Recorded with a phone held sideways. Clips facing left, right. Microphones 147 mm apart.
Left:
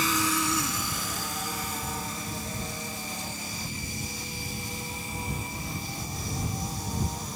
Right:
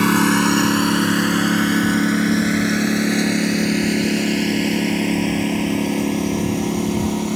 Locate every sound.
0.0 s a lawn mower: 70° right (ahead or behind); by 7.4 s 80° right